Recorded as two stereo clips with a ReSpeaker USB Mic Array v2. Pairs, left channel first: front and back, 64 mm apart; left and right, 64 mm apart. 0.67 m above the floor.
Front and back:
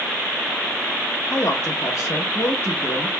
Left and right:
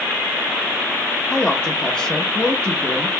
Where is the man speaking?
15° left, 1.1 m.